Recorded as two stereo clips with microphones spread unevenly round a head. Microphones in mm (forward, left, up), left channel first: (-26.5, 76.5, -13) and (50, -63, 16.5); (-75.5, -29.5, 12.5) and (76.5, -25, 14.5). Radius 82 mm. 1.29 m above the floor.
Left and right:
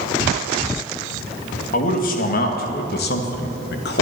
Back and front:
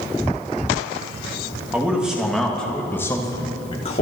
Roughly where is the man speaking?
Left.